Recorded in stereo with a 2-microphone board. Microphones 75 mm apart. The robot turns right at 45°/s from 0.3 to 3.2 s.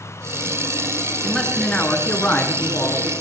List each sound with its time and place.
1.2 s a man speaking: 5° left (ahead or behind), 1.5 m; by 3.1 s 30° left (ahead or behind), 1.5 m